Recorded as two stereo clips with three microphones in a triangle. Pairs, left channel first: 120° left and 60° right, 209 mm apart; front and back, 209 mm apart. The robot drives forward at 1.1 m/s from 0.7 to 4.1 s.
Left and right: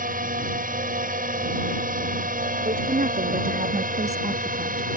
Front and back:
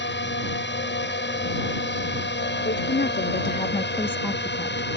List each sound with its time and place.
0.0 s a drone: 15° right; by 5.0 s 20° right
2.6 s a woman speaking: 15° right; by 5.0 s 75° right